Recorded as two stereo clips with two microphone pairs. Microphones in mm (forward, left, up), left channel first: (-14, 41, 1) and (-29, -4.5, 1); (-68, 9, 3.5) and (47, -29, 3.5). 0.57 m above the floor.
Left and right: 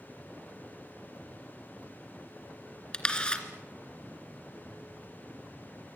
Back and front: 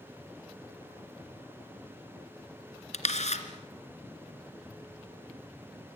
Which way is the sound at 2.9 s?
140° left.